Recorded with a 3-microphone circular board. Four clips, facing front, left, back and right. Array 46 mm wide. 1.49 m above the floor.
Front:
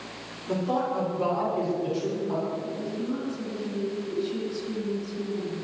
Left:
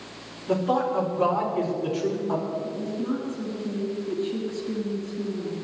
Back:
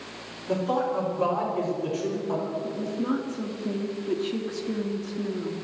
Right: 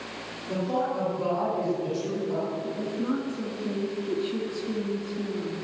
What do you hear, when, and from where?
0.5 s a man speaking: 90° left, 5.5 m; by 2.5 s 100° left, 7 m
2.6 s a woman speaking: 165° right, 2.5 m